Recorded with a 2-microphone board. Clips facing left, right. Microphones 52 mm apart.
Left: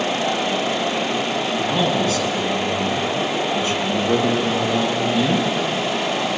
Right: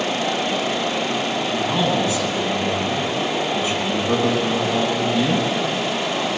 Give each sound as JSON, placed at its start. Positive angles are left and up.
{"t": 1.5, "sound": "a man speaking", "side_deg": -20, "distance_m": 7.5}